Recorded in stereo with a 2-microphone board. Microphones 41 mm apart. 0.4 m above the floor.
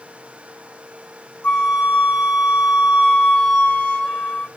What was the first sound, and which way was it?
A flute, 35° left (ahead or behind).